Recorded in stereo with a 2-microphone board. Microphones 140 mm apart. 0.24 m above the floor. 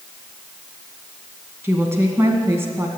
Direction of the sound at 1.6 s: 20° right (ahead or behind).